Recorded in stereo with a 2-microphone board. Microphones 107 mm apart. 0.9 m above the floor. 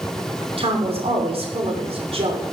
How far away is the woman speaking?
About 2.5 m.